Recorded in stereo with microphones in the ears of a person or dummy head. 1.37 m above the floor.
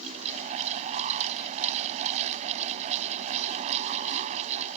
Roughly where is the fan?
Right.